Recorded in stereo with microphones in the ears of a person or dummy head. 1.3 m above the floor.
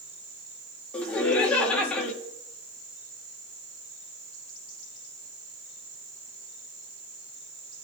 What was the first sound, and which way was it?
Laughter, 15° left (ahead or behind).